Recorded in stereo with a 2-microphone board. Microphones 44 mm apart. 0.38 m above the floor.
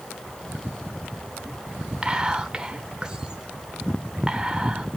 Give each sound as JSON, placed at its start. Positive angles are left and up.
{"t": 2.0, "sound": "whispering", "side_deg": -20, "distance_m": 0.8}